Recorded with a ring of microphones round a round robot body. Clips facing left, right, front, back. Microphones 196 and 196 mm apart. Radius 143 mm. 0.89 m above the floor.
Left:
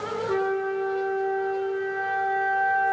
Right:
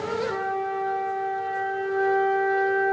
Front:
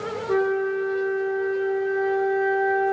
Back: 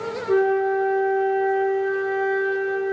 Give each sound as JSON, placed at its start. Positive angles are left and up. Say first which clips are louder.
{"t": 0.3, "sound": "a flute", "louder": "left 4 dB, back 3 dB", "azimuth_deg": 125, "distance_m": 0.9}